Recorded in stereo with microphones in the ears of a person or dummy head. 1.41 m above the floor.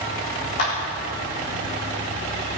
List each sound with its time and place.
0.6 s a clap: 60° left (ahead or behind), 3.5 m